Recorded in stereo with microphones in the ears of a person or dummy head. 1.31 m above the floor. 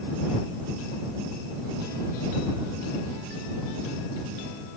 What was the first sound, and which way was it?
Only background noise.